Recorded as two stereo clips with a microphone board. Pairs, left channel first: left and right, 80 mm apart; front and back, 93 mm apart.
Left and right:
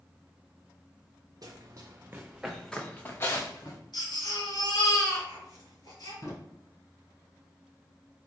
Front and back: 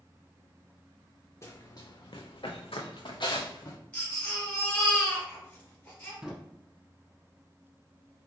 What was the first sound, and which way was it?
Running footsteps, 55° right.